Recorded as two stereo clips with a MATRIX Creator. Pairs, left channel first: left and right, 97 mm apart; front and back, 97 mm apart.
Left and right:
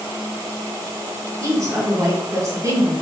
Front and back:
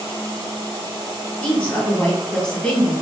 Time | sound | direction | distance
1.4 | a woman speaking | 75° right | 1.4 m